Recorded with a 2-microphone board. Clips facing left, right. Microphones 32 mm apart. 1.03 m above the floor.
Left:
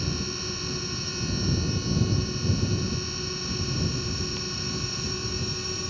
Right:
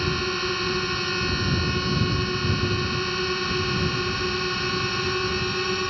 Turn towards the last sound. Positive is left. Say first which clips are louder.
# right 7 dB
turn(degrees=-45)  # may be behind; listen again after turning